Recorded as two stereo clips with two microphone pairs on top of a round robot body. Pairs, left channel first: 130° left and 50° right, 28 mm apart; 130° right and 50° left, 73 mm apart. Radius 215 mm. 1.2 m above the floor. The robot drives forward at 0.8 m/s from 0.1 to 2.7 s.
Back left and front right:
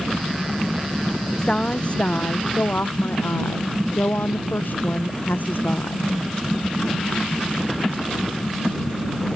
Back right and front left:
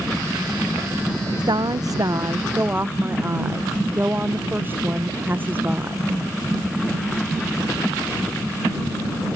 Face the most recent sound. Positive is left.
turn(degrees=110)